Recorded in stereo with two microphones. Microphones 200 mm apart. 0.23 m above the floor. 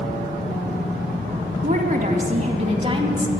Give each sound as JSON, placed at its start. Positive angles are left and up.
{"t": 1.6, "sound": "a woman speaking", "side_deg": -45, "distance_m": 1.7}